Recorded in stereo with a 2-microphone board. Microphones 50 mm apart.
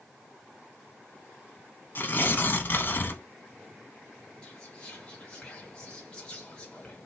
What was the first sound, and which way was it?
Tearing paper, 45° left (ahead or behind).